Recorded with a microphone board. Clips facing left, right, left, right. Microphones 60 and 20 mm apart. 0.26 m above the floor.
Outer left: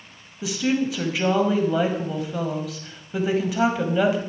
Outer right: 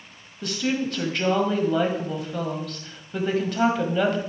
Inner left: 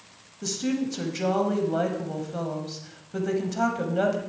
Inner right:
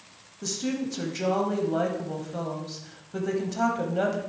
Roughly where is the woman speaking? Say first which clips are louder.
Outer left 3 dB, inner left 2 dB; centre.